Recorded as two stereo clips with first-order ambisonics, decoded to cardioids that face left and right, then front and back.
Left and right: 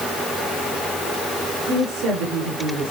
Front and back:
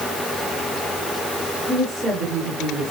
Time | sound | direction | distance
1.7 | a woman speaking | 120° right | 5.5 m